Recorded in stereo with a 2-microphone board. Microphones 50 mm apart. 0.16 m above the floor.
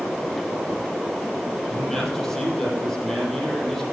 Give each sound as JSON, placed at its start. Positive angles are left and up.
{"t": 1.7, "sound": "a man speaking", "side_deg": 5, "distance_m": 6.0}